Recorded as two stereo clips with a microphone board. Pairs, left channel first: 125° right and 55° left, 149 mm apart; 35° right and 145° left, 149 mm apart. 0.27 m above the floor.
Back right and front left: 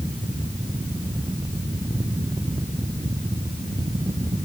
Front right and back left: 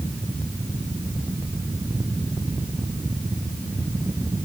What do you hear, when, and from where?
Only background noise.